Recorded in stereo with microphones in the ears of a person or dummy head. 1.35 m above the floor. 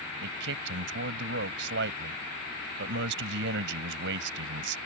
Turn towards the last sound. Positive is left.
turn(degrees=-70)  # may be behind; listen again after turning